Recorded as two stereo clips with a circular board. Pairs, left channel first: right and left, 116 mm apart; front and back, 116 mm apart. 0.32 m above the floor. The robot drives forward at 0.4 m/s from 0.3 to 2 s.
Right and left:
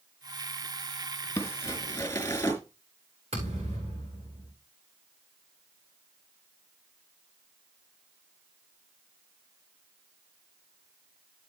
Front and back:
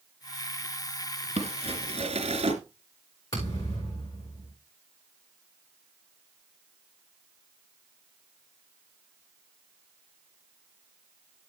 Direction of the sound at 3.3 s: 60° left.